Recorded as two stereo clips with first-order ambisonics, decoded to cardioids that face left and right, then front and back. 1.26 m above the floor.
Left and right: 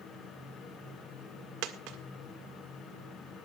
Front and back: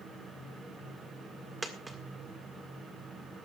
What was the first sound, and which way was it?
A dropped coin, 100° right.